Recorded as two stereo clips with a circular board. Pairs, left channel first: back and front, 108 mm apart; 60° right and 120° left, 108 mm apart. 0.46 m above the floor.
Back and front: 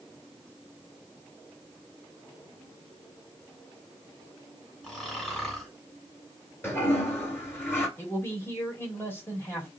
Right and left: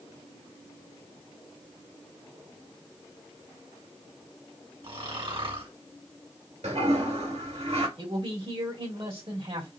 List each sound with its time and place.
4.8 s snoring: 95° left, 2.5 m
6.6 s a toilet flushing: 110° left, 2.5 m
8.0 s a man speaking: 115° left, 2.5 m